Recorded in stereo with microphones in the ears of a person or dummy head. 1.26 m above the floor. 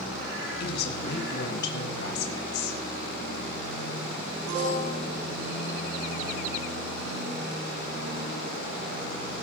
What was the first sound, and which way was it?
A woman speaking, 65° left (ahead or behind).